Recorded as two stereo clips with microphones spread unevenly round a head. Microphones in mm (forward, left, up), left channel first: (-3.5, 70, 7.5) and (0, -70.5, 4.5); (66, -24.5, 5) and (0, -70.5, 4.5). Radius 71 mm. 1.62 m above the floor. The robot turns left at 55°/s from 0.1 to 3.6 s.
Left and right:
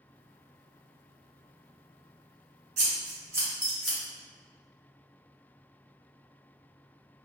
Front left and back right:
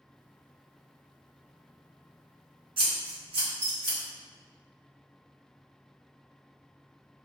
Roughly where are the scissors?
Behind right.